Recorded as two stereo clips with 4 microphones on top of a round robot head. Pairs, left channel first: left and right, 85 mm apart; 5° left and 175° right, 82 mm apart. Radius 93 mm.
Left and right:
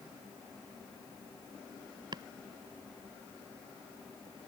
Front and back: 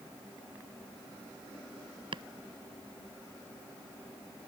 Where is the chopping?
140° right.